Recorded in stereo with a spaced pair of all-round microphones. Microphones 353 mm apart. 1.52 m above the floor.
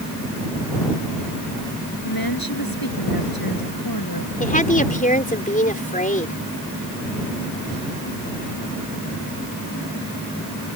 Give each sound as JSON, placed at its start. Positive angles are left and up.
{"t": 2.0, "sound": "a woman speaking", "side_deg": 75}
{"t": 4.4, "sound": "a woman speaking", "side_deg": 20}